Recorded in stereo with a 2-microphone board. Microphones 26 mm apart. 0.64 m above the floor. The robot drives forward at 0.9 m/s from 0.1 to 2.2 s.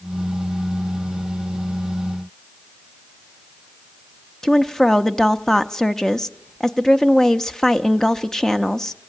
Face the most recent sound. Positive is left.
turn(degrees=20)  # may be behind; listen again after turning